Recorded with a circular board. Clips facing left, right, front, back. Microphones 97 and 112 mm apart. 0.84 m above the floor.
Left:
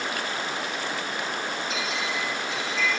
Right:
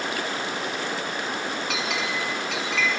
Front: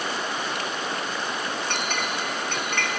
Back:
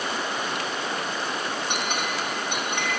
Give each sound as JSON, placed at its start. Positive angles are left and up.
{"t": 1.7, "sound": "a clink", "azimuth_deg": -105, "distance_m": 4.5}